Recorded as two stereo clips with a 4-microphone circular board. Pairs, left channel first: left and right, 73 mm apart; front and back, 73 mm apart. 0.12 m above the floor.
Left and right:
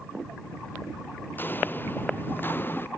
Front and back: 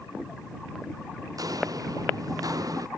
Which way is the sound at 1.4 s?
150° left.